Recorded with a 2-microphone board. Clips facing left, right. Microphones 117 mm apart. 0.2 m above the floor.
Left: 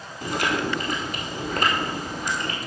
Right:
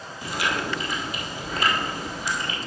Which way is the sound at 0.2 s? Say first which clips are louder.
Left 3 dB; 50° left (ahead or behind).